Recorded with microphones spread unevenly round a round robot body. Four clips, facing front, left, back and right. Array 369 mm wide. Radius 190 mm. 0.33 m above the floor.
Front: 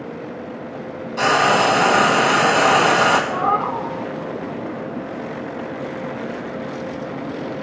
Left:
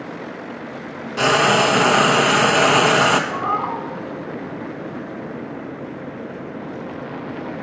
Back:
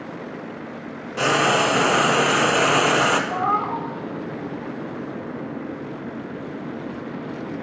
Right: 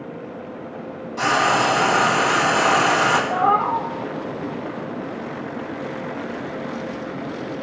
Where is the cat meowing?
140° right, 0.8 m.